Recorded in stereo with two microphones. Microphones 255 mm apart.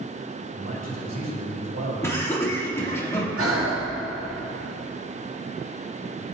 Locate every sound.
0.5 s a man speaking: 85° right, 4.5 m
2.0 s laughter: 10° left (ahead or behind), 1.8 m
3.4 s breathing: 55° right (ahead or behind), 2 m